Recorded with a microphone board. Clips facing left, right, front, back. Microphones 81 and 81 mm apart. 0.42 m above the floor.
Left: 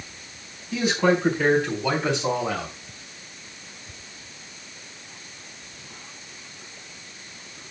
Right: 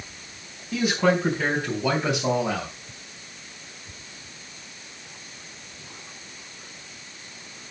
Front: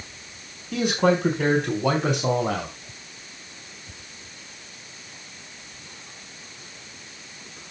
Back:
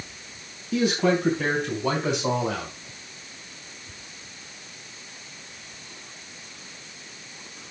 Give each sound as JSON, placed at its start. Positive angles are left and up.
{"t": 0.7, "sound": "a man speaking", "azimuth_deg": -5, "distance_m": 4.5}